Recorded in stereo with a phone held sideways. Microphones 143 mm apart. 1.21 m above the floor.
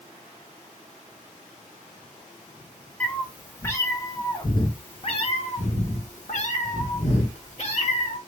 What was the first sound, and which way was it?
A cat meowing, 10° left (ahead or behind).